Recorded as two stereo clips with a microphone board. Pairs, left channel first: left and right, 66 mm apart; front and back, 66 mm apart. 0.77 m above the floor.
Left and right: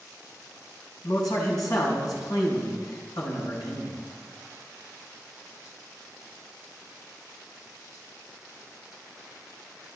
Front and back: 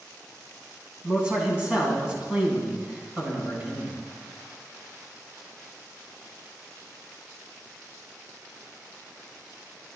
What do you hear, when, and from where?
1.0 s a man speaking: 105° left, 6 m